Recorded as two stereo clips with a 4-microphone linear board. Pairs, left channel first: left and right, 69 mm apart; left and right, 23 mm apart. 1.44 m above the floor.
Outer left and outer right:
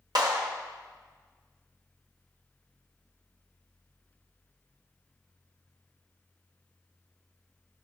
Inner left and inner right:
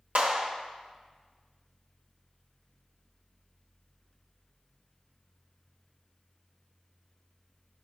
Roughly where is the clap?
Right.